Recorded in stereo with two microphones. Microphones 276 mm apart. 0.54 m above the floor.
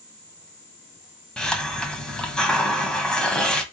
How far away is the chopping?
No chopping in this recording.